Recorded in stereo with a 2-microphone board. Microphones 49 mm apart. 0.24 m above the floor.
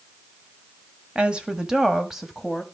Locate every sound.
1.1 s a woman speaking: 20° right (ahead or behind), 1.2 m; by 2.6 s centre (ahead or behind), 1.5 m